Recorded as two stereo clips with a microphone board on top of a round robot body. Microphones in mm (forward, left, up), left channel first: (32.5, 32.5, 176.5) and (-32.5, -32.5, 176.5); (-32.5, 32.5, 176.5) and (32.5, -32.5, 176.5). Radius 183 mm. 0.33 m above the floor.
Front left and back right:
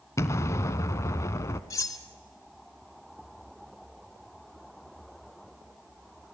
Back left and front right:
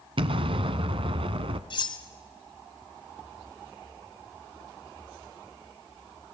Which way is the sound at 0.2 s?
15° right.